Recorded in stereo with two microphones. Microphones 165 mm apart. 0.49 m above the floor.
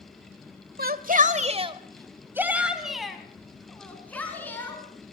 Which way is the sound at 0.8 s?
65° right (ahead or behind).